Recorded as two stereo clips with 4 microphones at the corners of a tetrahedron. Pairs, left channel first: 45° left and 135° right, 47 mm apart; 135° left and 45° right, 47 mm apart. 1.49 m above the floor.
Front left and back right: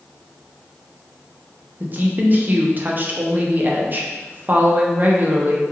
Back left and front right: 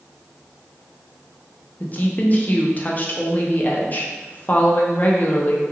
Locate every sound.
1.8 s a woman speaking: 175° right, 0.5 m